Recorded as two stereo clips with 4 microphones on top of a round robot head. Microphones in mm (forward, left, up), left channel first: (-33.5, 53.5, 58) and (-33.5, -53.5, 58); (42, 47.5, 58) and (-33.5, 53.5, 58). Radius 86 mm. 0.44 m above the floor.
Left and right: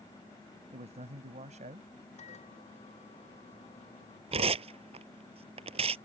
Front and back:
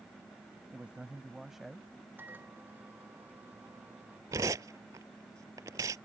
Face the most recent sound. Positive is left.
turn(degrees=-120)